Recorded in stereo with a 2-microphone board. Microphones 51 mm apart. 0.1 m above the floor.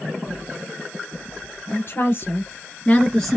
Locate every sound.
1.7 s a woman speaking: 45° left (ahead or behind), 1.5 m; by 3.4 s centre (ahead or behind), 1.1 m